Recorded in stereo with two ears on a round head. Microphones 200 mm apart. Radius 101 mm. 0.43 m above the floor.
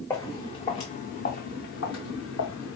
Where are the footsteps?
10° left (ahead or behind), 1.4 m; by 2.8 s 65° left (ahead or behind), 1.6 m.